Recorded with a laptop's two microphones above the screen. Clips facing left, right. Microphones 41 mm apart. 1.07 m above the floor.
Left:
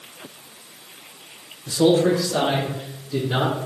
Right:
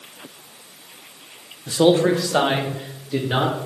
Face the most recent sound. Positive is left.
turn(degrees=-60)  # may be behind; listen again after turning